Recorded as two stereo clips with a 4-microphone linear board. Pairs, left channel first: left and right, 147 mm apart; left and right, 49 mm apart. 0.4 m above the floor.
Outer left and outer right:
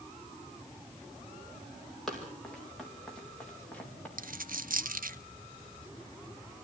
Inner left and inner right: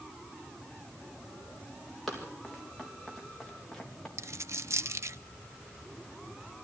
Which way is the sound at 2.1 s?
5° left (ahead or behind).